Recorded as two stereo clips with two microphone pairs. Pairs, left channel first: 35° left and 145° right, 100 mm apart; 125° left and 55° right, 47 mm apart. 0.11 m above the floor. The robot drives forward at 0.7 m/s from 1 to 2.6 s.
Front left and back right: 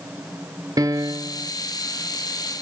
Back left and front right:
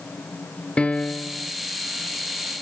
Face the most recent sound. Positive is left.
turn(degrees=180)